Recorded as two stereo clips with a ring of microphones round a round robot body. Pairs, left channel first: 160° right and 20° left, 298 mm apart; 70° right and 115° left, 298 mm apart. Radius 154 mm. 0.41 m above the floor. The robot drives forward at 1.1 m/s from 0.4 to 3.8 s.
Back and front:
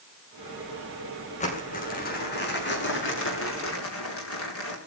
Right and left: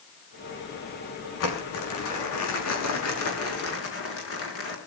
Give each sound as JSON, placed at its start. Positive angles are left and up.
{"t": 1.4, "sound": "crumpling", "azimuth_deg": -90, "distance_m": 6.5}